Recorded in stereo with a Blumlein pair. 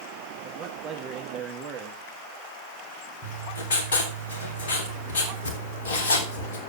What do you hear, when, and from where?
0.4 s a man speaking: 30° right, 1.4 m
3.2 s writing: 60° left, 3 m